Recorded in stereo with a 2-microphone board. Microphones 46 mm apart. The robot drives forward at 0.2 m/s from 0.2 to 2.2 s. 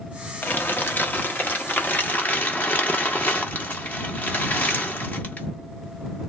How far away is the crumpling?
About 0.8 m.